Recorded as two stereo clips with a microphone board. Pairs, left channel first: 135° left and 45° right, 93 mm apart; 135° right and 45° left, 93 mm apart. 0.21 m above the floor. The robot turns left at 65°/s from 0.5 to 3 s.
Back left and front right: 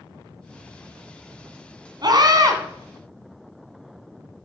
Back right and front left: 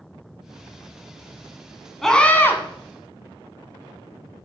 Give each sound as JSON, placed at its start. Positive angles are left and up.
{"t": 2.0, "sound": "a scream", "azimuth_deg": -45, "distance_m": 2.0}